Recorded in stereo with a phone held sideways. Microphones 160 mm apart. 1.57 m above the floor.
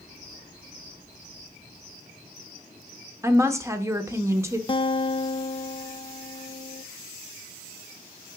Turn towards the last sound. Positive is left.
turn(degrees=35)  # may be behind; listen again after turning